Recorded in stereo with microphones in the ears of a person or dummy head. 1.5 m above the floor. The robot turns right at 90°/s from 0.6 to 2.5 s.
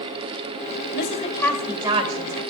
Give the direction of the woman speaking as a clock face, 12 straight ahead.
8 o'clock.